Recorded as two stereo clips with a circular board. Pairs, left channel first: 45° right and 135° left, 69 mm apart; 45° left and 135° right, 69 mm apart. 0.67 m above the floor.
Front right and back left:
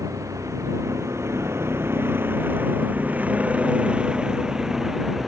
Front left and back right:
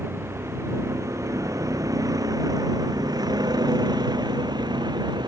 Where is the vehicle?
170° left; by 5.3 s 140° right.